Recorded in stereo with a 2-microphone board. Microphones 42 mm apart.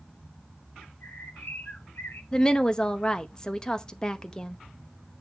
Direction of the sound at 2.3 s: 20° left (ahead or behind).